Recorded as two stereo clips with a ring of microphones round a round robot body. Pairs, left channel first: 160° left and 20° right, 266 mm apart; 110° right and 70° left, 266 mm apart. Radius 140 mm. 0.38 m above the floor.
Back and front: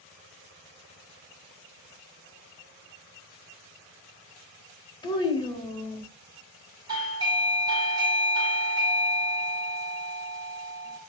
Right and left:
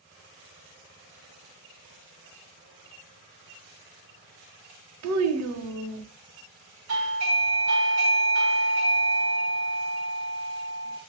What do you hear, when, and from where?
5.0 s a child speaking: 85° left, 0.8 m
6.9 s a doorbell: 50° left, 2.5 m